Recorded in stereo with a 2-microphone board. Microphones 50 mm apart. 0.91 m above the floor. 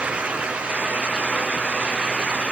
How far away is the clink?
No clink in this recording.